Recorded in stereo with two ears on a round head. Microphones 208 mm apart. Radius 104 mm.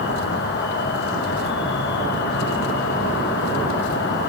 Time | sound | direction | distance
0.0 | an insect | 55° left (ahead or behind) | 4.5 m